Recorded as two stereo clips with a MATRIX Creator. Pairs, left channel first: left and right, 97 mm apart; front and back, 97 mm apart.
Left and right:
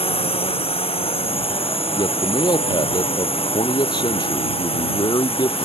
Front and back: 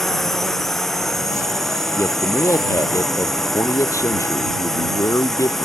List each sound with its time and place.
0.0 s a drone: 90° left
1.9 s a man speaking: 55° left